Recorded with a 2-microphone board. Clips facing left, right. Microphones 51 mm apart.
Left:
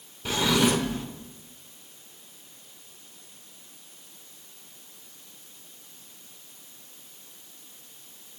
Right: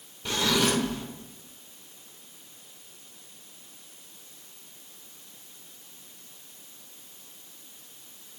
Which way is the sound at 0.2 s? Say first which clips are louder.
Left 2 dB; 10° left (ahead or behind).